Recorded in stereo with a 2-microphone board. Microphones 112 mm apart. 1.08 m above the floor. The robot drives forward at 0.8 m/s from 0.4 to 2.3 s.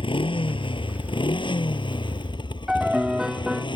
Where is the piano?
5° right (ahead or behind).